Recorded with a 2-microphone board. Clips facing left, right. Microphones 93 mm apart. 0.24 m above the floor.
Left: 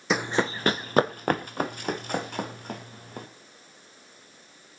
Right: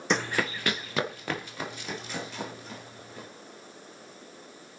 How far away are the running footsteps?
About 0.5 m.